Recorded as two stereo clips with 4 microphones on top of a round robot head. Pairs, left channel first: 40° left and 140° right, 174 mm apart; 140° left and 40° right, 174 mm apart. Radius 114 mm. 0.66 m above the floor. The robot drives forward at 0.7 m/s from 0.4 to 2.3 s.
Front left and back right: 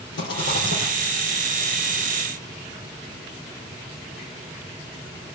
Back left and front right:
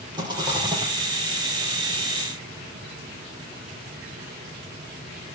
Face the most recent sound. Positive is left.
turn(degrees=35)